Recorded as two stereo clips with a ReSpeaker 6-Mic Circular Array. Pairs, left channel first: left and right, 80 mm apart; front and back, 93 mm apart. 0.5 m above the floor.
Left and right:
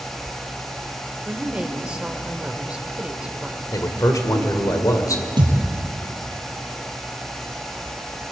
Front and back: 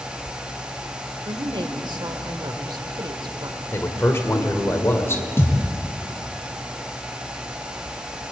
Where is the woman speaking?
165° right, 1.6 m.